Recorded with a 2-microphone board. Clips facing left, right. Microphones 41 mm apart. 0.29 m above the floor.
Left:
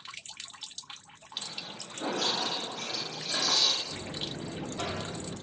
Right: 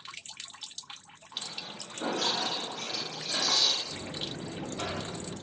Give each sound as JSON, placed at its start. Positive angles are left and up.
{"t": 1.3, "sound": "footsteps", "side_deg": -15, "distance_m": 1.9}
{"t": 3.9, "sound": "a buzzer", "side_deg": -10, "distance_m": 1.3}